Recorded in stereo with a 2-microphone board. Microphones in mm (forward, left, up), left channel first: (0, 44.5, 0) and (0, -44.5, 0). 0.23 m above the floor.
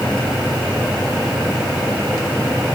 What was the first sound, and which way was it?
Only background noise.